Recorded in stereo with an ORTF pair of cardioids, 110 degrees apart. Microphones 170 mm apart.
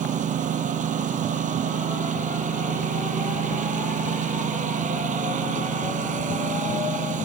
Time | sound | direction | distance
0.0 | a lawn mower | 50° right | ?